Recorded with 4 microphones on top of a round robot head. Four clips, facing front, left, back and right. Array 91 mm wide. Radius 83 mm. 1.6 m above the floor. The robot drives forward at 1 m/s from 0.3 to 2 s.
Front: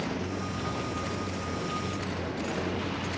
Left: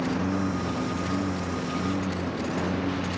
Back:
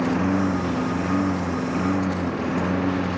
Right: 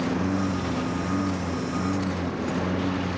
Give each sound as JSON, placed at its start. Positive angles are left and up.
{"t": 0.0, "sound": "a lawn mower", "azimuth_deg": 180}